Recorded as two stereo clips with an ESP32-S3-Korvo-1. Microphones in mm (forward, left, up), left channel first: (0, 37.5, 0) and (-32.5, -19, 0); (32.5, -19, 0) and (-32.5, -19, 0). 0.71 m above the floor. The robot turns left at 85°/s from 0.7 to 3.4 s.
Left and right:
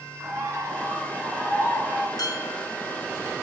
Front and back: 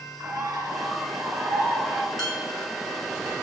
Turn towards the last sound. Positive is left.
turn(degrees=-10)